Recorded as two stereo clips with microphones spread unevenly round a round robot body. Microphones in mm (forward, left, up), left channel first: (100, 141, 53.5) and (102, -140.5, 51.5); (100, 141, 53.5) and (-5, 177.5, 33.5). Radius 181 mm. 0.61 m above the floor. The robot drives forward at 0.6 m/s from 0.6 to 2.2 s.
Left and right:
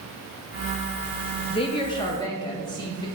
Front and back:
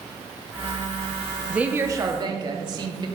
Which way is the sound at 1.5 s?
120° left.